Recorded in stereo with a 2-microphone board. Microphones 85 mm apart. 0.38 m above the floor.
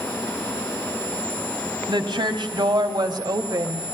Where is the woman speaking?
65° right (ahead or behind), 3 m; by 3.8 s 45° right (ahead or behind), 1.9 m.